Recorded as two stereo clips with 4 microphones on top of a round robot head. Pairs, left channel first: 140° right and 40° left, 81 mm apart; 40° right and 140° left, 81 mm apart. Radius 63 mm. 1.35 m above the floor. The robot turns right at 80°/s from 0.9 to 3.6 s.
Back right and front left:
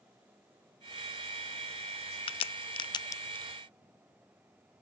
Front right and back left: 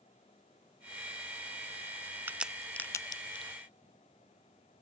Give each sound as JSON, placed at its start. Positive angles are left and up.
{"t": 2.3, "sound": "a crack", "azimuth_deg": -155}